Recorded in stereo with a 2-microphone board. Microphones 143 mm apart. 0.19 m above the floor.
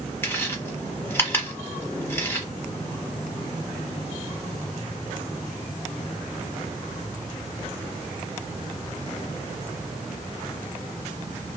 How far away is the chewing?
About 1.1 m.